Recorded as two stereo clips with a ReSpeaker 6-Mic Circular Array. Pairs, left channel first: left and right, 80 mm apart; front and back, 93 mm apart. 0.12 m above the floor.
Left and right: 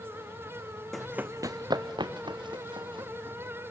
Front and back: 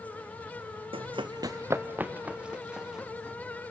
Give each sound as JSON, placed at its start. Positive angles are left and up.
{"t": 0.9, "sound": "running footsteps", "azimuth_deg": 175, "distance_m": 0.5}